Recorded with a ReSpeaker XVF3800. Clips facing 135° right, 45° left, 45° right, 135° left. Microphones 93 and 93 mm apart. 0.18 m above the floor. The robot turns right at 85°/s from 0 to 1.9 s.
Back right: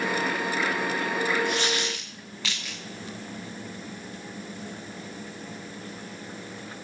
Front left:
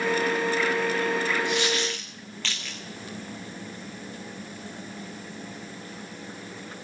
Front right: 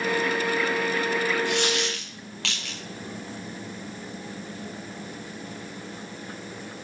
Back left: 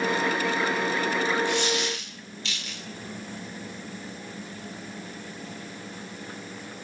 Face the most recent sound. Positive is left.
turn(degrees=-55)